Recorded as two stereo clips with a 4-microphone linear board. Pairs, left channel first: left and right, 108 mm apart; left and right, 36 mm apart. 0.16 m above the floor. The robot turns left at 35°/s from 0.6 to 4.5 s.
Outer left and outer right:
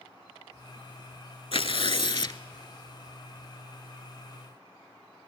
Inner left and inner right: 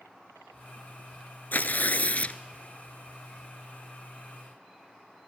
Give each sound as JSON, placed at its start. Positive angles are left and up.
{"t": 1.5, "sound": "tearing paper", "azimuth_deg": 75, "distance_m": 0.5}